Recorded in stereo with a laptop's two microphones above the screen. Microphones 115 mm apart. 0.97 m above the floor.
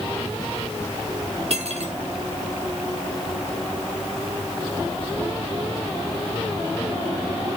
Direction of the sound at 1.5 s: 65° right (ahead or behind).